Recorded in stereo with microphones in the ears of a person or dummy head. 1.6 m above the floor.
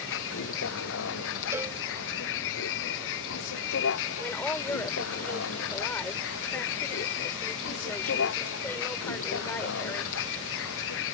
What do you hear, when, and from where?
0.0 s a vehicle: 70° left (ahead or behind)
1.5 s a cowbell: 10° right (ahead or behind)
4.2 s a woman speaking: 10° left (ahead or behind)